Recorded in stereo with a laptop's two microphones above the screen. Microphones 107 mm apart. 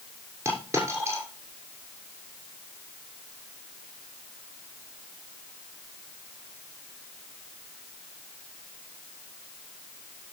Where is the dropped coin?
25° right (ahead or behind), 6.5 m.